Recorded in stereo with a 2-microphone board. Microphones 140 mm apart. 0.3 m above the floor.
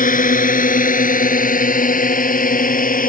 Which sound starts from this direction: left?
A drone, at 0.0 s.